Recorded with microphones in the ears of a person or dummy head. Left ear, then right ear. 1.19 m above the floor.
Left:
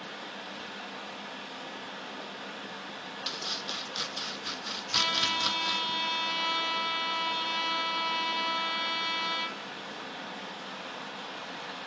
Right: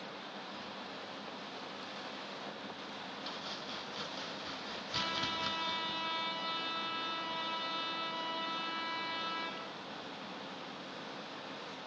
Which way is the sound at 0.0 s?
55° left (ahead or behind).